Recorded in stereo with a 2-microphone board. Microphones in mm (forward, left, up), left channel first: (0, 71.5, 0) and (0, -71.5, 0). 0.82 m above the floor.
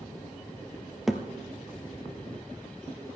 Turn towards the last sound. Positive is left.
turn(degrees=-5)  # may be behind; listen again after turning